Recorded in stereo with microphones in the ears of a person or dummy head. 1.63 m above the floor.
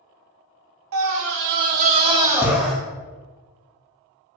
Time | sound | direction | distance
0.9 | a scream | 70° right (ahead or behind) | 0.9 m